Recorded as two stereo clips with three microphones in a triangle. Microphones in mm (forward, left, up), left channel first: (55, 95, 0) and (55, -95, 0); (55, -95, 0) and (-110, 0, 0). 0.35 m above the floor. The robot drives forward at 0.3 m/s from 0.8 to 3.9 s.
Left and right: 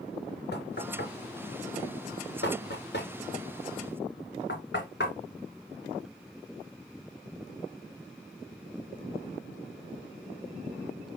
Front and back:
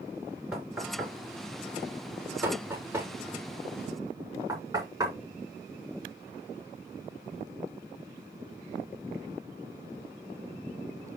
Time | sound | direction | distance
0.5 | knocking | 65° left | 3.5 m